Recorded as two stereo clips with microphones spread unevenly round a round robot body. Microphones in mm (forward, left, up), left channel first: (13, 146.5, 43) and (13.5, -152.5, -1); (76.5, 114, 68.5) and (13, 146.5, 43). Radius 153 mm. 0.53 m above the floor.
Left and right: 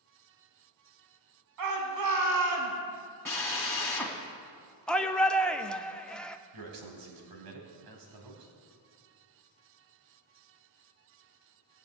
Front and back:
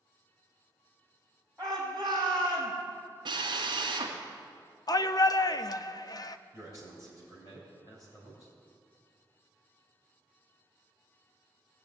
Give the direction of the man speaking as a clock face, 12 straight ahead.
3 o'clock.